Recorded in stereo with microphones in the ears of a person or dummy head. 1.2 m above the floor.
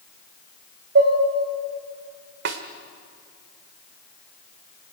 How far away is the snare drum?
About 1.5 m.